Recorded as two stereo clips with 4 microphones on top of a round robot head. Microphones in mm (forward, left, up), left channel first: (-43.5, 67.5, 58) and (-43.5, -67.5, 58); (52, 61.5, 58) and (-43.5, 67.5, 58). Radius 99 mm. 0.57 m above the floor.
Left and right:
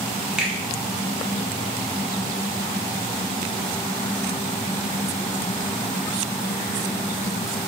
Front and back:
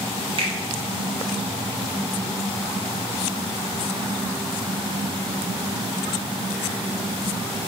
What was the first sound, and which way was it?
A finger snap, 175° right.